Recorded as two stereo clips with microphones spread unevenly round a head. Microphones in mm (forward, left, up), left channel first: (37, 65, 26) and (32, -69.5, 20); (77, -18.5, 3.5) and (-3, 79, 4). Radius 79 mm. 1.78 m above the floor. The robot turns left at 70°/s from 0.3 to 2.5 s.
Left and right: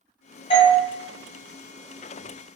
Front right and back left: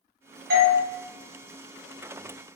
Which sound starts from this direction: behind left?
A doorbell, at 0.5 s.